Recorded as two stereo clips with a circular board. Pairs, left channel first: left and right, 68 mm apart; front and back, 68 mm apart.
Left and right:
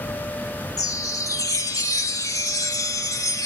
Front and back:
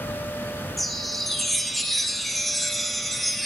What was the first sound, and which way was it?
A chime, 90° left.